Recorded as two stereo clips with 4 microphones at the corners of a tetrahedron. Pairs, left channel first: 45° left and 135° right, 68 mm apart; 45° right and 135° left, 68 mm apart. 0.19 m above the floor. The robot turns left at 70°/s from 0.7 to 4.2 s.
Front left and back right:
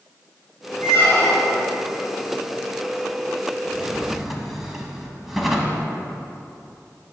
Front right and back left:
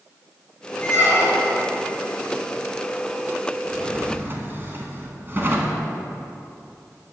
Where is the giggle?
I don't hear a giggle.